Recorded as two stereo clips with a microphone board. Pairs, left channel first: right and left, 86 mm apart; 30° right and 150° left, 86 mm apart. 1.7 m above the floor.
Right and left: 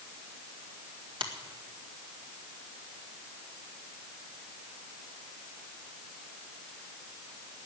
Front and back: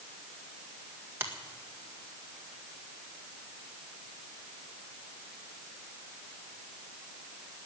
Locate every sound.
1.2 s a finger snap: 90° left, 1.8 m